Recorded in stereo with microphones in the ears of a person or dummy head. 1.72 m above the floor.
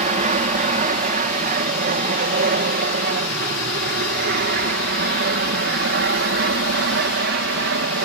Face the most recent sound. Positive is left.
turn(degrees=-60)  # may be behind; listen again after turning